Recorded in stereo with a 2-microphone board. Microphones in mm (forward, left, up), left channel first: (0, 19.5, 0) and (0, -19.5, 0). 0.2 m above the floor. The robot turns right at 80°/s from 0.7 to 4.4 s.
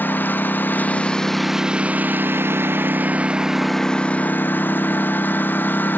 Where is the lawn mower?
125° left; by 6.0 s 60° left.